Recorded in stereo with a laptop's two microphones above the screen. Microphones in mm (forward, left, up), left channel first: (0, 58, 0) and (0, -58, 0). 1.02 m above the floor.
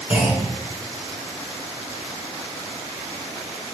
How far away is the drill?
I don't hear a drill.